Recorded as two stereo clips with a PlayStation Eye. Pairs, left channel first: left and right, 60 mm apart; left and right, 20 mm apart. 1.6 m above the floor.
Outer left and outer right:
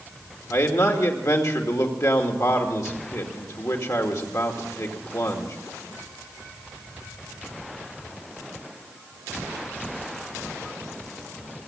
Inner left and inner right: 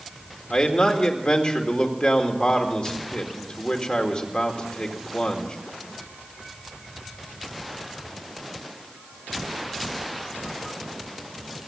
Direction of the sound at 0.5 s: 60° left (ahead or behind).